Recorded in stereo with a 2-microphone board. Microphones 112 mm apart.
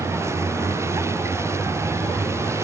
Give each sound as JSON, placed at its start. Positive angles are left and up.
{"t": 0.0, "sound": "a vehicle", "side_deg": -25}